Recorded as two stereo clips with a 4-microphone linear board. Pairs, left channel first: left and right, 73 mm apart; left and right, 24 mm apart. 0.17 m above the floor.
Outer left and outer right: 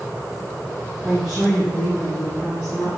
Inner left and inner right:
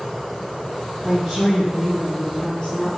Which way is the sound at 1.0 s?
10° right (ahead or behind).